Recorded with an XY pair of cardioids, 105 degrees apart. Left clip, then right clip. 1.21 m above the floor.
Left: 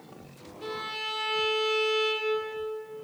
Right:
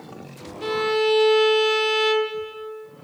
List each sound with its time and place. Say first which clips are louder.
0.6 s a violin: right 12 dB; 55° right, 2 m